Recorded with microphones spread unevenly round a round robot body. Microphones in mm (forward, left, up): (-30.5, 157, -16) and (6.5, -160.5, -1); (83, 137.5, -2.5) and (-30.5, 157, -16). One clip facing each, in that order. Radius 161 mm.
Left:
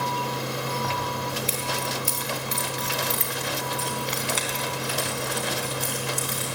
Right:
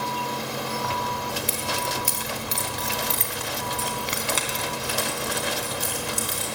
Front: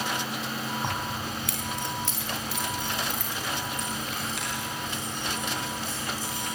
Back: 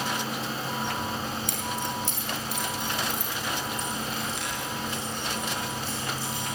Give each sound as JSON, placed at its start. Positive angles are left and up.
{"t": 0.8, "sound": "keys jangling", "azimuth_deg": 5, "distance_m": 2.5}